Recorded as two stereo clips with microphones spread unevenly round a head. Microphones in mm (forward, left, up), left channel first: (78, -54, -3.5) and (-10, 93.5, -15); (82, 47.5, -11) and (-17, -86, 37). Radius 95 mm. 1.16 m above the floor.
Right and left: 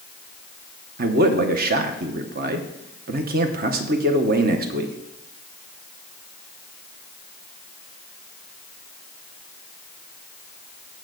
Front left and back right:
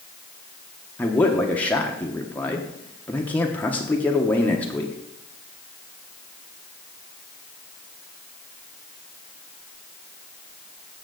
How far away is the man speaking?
About 1.0 m.